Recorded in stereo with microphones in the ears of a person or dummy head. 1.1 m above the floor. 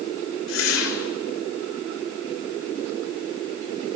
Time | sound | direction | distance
0.5 | a whoosh | 80° left | 3 m